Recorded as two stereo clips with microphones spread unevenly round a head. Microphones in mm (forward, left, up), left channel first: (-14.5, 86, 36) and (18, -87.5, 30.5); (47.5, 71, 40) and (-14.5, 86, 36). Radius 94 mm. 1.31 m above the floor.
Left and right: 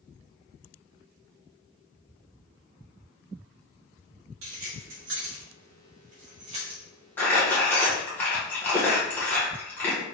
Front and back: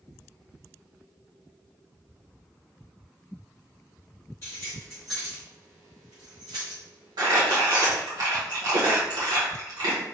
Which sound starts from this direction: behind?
Crumpling, at 7.2 s.